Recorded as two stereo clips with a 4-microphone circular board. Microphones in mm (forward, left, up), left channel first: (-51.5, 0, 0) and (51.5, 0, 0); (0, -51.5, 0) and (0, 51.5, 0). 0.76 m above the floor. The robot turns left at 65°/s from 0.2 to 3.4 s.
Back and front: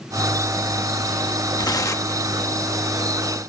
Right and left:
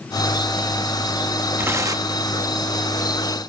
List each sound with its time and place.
1.6 s tearing paper: 155° left, 1.1 m; by 2.2 s 115° left, 1.1 m